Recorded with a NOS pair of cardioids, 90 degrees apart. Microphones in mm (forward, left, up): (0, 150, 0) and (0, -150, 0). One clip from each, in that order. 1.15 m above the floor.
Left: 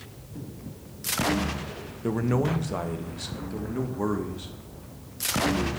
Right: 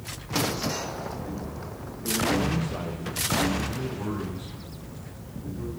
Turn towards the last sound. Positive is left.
turn(degrees=60)